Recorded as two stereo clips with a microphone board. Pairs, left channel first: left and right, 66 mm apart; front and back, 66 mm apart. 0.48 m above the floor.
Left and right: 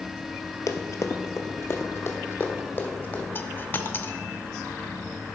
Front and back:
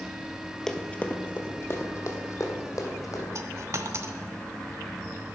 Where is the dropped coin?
145° left, 0.5 m.